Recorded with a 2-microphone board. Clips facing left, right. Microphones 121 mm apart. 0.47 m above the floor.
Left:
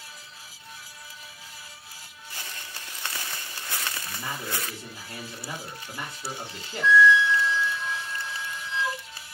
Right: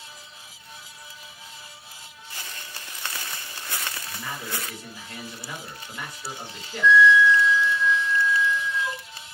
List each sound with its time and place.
4.0 s a man speaking: 25° left (ahead or behind), 1.3 m
6.8 s a flute: 35° left (ahead or behind), 1.2 m